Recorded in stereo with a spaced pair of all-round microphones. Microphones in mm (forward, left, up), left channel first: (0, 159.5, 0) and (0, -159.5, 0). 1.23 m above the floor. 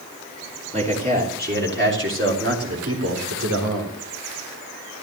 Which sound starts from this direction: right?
A man speaking, at 0.7 s.